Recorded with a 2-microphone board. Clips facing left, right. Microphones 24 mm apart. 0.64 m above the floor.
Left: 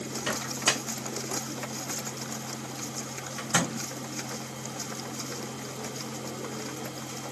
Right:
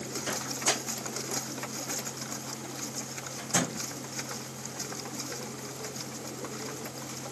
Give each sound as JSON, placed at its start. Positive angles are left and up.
{"t": 0.3, "sound": "a microwave", "side_deg": 60, "distance_m": 1.0}